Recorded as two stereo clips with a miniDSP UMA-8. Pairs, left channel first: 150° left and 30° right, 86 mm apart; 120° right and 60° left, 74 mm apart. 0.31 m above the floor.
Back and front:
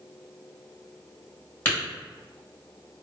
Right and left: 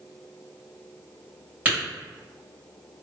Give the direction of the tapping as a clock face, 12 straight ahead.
8 o'clock.